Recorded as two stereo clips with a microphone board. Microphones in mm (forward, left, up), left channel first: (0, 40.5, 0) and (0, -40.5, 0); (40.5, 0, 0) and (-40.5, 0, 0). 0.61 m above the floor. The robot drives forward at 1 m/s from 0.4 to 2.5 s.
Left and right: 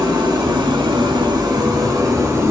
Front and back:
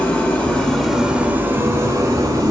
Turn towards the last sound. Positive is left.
turn(degrees=-145)